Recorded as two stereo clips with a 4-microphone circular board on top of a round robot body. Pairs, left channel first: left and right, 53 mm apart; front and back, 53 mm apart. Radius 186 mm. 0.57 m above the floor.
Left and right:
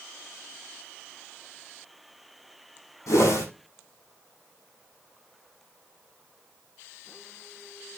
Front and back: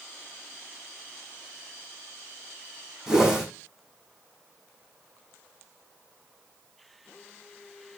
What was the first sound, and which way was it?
A whoosh, 100° left.